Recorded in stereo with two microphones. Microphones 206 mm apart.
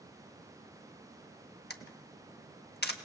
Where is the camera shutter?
50° left (ahead or behind), 0.9 m.